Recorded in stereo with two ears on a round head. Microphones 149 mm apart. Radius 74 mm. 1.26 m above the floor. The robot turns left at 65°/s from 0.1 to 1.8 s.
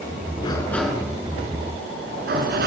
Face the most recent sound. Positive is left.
turn(degrees=-60)